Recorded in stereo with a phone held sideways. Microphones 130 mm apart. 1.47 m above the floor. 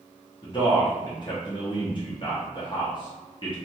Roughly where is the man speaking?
Left.